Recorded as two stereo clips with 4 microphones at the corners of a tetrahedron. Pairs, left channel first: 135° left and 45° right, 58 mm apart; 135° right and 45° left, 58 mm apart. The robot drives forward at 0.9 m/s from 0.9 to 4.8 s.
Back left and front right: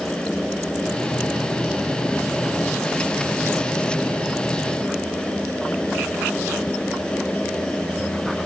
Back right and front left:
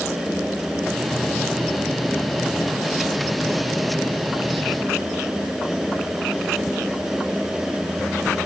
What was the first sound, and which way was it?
Only background noise.